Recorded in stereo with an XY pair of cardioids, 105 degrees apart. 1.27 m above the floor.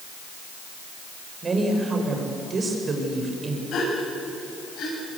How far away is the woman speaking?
About 5.5 m.